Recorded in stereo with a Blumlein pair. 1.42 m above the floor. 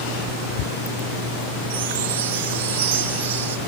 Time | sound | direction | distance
1.7 | a chime | 55° right | 1.2 m